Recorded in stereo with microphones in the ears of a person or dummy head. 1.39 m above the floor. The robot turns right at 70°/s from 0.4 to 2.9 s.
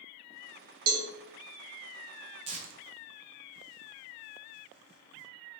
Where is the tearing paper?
30° right (ahead or behind), 0.5 m; by 5.3 s 55° right (ahead or behind), 0.5 m.